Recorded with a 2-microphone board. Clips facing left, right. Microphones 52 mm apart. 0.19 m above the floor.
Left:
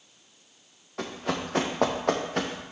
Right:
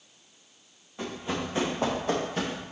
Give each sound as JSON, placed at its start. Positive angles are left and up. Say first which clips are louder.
{"t": 1.0, "sound": "running footsteps", "louder": "left 2 dB", "side_deg": 85, "distance_m": 2.5}